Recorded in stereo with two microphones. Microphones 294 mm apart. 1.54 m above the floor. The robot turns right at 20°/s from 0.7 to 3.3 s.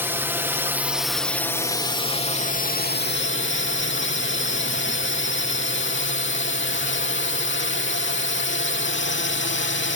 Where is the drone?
10° right; by 10.0 s 45° left.